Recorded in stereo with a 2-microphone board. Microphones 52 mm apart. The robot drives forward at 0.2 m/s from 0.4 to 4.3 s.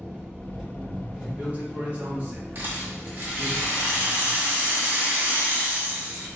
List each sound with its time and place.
0.0 s an engine running: 20° right (ahead or behind), 1.2 m; by 6.4 s 25° right (ahead or behind), 0.9 m
1.2 s a man speaking: 45° right (ahead or behind), 1.0 m; by 3.5 s 30° right (ahead or behind), 1.3 m
2.5 s a rattle: 45° right (ahead or behind), 1.7 m; by 6.3 s 55° right (ahead or behind), 1.5 m